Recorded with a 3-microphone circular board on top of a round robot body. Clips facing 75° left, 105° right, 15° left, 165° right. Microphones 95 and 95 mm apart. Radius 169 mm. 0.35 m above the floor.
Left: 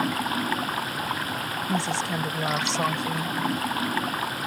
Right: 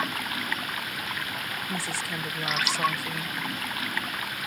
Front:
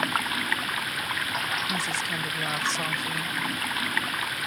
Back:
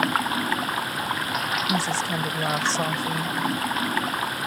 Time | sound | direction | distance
0.0 | running water | 135° left | ?
1.7 | a woman speaking | 140° left | ?